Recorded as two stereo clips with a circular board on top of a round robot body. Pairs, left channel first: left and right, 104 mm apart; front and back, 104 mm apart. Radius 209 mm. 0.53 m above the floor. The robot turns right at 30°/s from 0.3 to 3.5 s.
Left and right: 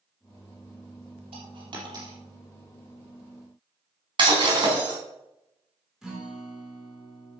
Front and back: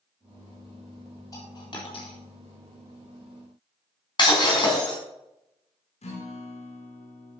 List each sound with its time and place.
1.3 s a dropped coin: 60° right, 3.5 m; by 2.2 s 35° right, 3.5 m
4.2 s breaking glass: 45° right, 4 m
6.0 s a guitar: 5° right, 3.5 m